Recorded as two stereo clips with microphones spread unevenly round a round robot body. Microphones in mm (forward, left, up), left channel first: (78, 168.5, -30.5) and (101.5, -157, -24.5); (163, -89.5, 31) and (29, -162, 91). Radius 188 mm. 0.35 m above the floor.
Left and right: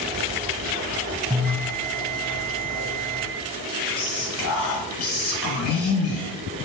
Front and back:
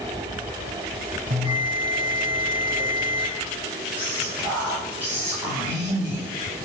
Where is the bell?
Straight behind, 1.0 m.